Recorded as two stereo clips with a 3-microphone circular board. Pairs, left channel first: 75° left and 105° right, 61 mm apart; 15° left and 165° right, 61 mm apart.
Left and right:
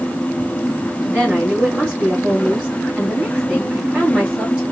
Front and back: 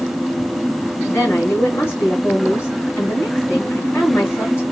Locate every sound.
1.1 s a woman speaking: 35° right, 2 m